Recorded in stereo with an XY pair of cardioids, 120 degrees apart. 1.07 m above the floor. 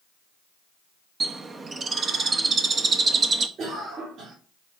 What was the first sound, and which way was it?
A bird, 35° right.